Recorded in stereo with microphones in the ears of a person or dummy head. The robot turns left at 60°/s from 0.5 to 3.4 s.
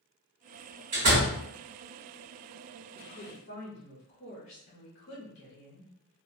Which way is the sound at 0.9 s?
50° right (ahead or behind).